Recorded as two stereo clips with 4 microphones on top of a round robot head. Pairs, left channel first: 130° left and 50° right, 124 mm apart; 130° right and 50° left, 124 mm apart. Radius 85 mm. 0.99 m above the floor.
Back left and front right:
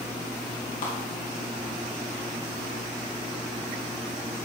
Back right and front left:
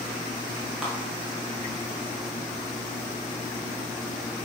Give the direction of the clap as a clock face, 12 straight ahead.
7 o'clock.